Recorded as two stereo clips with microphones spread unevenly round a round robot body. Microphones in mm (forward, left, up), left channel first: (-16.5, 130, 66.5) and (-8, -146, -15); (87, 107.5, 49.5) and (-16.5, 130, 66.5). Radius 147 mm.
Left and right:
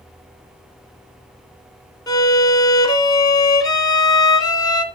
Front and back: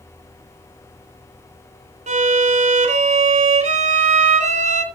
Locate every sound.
2.1 s a violin: 170° left, 2 m